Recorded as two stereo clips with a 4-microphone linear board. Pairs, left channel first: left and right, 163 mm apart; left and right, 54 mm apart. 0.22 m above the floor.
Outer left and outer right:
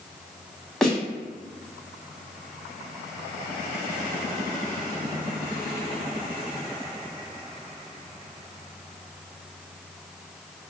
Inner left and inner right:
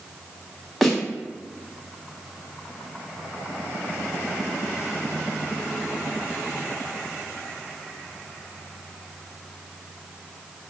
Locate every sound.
0.8 s a snare drum: 5° left (ahead or behind), 0.9 m